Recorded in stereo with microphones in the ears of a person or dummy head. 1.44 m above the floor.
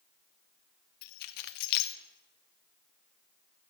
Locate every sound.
1.0 s keys jangling: 60° left (ahead or behind), 0.6 m